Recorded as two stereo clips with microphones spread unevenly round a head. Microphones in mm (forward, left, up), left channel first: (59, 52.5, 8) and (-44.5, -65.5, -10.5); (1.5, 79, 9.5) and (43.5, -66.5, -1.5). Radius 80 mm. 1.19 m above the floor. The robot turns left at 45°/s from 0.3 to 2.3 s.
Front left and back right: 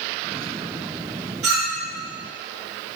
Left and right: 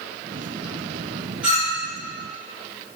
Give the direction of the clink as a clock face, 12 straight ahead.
5 o'clock.